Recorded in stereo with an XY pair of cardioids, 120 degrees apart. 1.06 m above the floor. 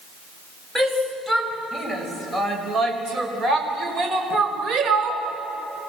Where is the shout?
10° right, 6 m; by 5.2 s 65° right, 4.5 m.